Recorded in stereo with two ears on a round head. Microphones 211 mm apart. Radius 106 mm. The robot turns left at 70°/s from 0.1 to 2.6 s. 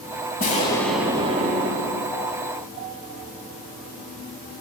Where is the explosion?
35° left, 0.9 m; by 2.5 s 110° right, 0.9 m.